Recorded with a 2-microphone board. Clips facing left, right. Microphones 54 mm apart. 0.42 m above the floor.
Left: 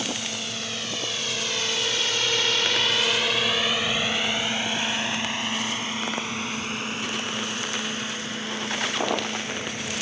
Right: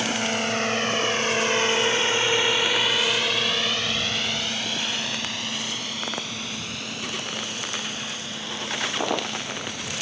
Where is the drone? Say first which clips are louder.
Right 6 dB; 55° right (ahead or behind); by 10.0 s 40° left (ahead or behind).